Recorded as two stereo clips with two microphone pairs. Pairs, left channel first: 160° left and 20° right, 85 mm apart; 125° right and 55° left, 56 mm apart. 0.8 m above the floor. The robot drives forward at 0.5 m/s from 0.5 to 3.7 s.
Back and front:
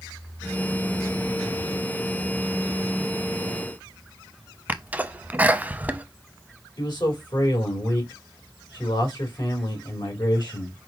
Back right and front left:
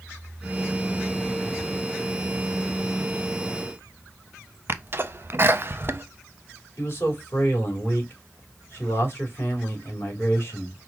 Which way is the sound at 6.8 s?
175° right.